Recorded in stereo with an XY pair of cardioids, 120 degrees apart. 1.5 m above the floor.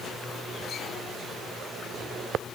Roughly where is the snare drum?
I don't hear a snare drum.